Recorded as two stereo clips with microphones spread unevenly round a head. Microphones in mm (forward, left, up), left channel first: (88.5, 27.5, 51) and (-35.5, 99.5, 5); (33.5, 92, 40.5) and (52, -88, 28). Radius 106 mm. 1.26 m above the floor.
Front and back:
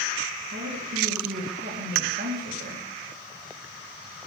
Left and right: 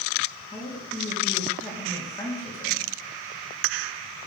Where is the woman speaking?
170° left, 2.5 m.